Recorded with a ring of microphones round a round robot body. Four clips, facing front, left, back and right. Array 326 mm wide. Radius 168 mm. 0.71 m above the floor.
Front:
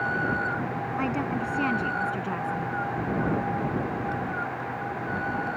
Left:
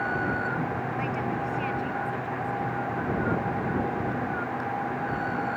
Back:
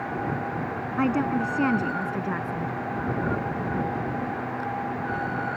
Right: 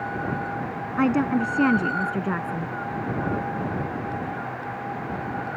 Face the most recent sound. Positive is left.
turn(degrees=-105)